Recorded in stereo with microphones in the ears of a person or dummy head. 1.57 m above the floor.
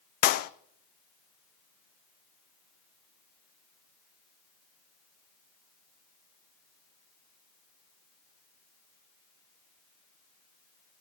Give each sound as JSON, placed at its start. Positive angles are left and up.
{"t": 0.2, "sound": "a clap", "side_deg": 50, "distance_m": 0.6}